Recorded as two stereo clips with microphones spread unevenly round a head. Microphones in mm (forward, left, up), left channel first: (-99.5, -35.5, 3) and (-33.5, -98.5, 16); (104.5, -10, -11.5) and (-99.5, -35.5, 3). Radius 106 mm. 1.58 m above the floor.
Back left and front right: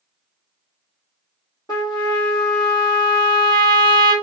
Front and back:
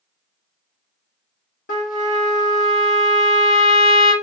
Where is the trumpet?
65° left, 1.1 m.